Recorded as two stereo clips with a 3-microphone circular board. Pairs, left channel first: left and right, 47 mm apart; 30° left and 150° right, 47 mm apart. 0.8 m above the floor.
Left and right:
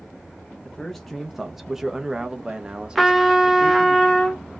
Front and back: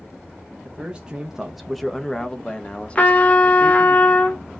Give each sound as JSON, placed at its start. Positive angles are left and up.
{"t": 0.7, "sound": "a man speaking", "azimuth_deg": 165, "distance_m": 0.8}
{"t": 3.0, "sound": "a trumpet", "azimuth_deg": -5, "distance_m": 0.9}